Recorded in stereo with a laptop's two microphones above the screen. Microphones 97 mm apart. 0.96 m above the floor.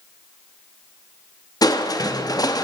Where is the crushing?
40° left (ahead or behind), 0.7 m.